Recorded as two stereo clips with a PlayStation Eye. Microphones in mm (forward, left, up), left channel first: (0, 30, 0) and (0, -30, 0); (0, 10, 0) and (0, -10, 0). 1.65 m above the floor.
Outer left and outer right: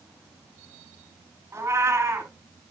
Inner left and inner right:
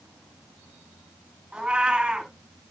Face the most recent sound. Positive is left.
turn(degrees=-55)  # may be behind; listen again after turning